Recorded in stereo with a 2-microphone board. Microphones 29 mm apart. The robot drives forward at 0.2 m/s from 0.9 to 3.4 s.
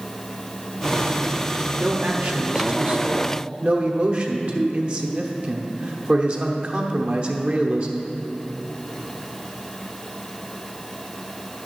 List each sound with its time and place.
1.8 s a man speaking: 40° right (ahead or behind), 0.9 m